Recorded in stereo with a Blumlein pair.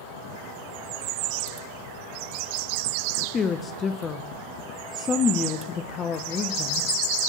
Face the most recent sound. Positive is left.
turn(degrees=20)